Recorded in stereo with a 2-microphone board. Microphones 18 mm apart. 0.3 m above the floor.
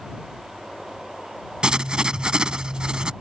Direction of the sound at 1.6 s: 45° right (ahead or behind).